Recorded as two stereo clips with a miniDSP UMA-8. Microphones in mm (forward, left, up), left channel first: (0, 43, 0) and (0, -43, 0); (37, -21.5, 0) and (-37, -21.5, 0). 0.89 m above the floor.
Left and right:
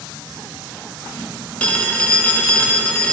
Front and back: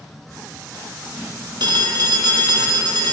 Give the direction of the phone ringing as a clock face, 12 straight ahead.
7 o'clock.